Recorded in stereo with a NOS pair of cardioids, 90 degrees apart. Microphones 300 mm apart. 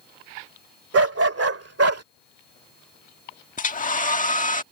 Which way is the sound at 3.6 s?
25° left.